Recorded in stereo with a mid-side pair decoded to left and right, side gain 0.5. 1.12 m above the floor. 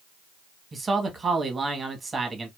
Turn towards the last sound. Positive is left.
turn(degrees=-25)